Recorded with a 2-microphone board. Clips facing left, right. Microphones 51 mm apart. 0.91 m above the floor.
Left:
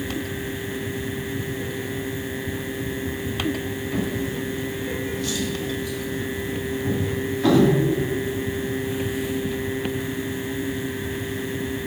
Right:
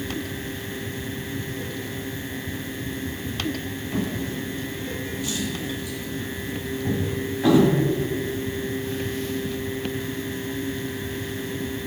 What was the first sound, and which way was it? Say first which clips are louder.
A drawer: left 1 dB; 15° right (ahead or behind).